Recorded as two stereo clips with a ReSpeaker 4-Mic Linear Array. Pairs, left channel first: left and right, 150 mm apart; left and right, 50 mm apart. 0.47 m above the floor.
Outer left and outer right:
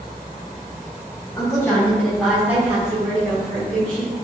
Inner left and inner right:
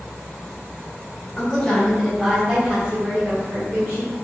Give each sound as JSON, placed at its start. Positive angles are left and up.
{"t": 1.4, "sound": "a woman speaking", "side_deg": 20, "distance_m": 1.6}